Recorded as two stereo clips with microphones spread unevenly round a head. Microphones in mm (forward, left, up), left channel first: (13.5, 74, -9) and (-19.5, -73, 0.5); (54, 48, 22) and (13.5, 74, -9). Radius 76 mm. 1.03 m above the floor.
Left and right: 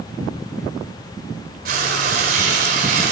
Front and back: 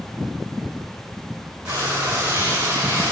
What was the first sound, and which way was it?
Frying, 135° right.